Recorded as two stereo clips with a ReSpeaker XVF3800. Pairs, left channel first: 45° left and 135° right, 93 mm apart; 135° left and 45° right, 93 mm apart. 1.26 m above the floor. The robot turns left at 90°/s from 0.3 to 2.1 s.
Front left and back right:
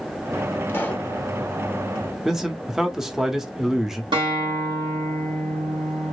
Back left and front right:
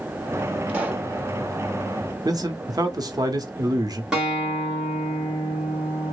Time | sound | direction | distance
0.7 | a pop | 15° left | 1.0 m
2.2 | a man speaking | 55° right | 0.8 m
4.1 | a guitar | 125° right | 1.7 m